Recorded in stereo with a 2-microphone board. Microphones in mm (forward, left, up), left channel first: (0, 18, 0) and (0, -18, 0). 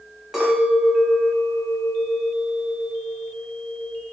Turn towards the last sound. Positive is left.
turn(degrees=-10)  # may be behind; listen again after turning